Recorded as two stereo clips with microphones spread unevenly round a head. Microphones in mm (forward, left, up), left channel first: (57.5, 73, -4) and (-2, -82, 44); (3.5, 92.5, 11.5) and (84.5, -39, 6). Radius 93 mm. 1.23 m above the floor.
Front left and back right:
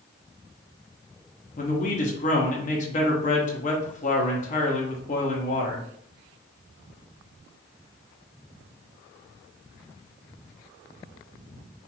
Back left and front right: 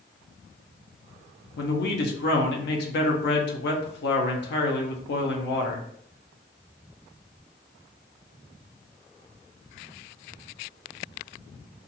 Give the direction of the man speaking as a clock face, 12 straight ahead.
8 o'clock.